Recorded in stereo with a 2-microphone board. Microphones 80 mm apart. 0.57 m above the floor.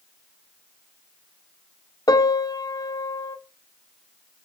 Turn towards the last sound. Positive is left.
turn(degrees=55)  # may be behind; listen again after turning